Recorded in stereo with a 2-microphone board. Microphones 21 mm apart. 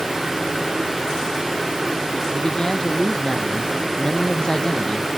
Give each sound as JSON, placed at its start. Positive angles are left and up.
{"t": 2.3, "sound": "a man speaking", "side_deg": 30}